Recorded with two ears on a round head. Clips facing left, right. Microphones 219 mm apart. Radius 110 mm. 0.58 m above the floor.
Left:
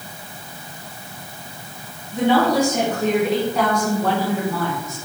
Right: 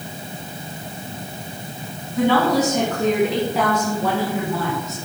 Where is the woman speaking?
20° left (ahead or behind), 4.5 m; by 5.0 s 20° right (ahead or behind), 6 m.